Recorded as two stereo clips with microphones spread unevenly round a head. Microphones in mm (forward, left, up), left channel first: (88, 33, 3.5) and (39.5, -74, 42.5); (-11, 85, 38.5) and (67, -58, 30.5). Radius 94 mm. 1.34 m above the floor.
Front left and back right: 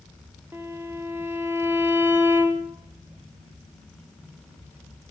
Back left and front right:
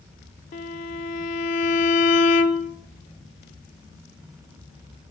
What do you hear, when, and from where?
0.5 s a violin: 170° left, 0.5 m